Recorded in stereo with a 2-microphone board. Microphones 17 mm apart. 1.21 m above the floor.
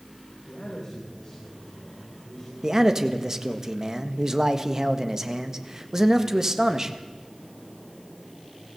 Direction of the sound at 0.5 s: 40° left (ahead or behind).